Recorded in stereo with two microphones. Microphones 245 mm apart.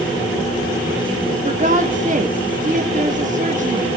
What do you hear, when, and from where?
1.4 s a woman speaking: 35° right (ahead or behind), 1.7 m